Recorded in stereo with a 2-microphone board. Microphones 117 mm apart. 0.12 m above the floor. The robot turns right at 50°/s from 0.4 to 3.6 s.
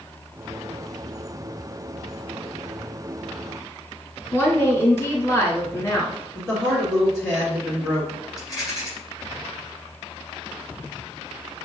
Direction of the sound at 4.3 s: 20° left (ahead or behind).